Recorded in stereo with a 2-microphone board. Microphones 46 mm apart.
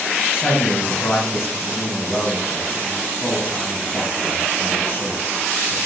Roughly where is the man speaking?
Left.